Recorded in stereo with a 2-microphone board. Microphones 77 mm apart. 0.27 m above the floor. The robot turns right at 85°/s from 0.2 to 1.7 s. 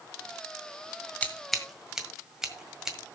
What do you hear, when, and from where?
1.2 s scissors: 15° left (ahead or behind), 1.6 m; by 3.0 s 5° right (ahead or behind), 1.6 m